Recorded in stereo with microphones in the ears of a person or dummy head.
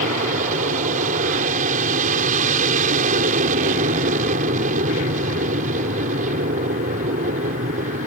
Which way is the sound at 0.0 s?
45° right (ahead or behind).